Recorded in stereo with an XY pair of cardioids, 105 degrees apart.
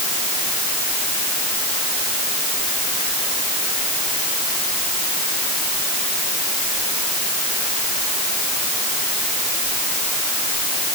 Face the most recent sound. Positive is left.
No sound to turn to.